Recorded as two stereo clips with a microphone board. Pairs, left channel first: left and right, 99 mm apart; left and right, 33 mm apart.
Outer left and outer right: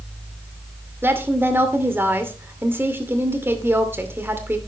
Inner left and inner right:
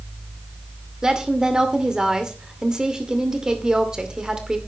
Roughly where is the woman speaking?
Right.